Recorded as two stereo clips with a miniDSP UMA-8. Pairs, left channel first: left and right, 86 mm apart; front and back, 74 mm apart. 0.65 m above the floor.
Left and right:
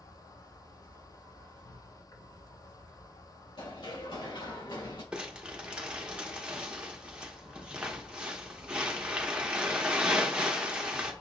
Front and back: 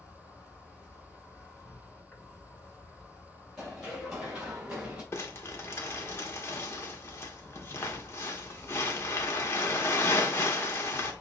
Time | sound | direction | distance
0.0 | an insect | 70° left | 2.5 m
3.6 | running footsteps | 90° left | 3.5 m
5.1 | crumpling | 20° right | 1.0 m